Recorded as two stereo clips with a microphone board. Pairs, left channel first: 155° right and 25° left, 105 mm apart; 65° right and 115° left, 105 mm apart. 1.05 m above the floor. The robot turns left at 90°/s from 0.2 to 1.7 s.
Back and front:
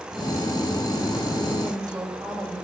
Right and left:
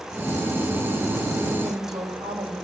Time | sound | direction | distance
1.6 | a woman speaking | 80° left | 4.5 m